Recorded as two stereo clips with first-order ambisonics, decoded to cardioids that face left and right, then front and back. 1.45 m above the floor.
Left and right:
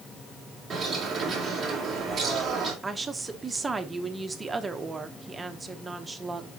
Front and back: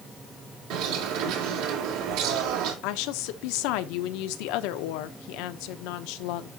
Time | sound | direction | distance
0.7 | a bird | 165° right | 2.5 m
2.8 | a woman speaking | 15° right | 0.8 m